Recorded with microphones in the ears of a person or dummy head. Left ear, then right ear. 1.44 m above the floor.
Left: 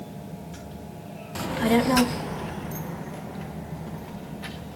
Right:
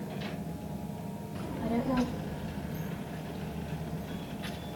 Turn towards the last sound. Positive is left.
turn(degrees=20)  # may be behind; listen again after turning